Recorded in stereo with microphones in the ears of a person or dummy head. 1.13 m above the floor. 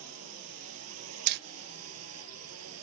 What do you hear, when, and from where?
0.0 s a drone: 85° right
1.3 s hammering: 55° right (ahead or behind)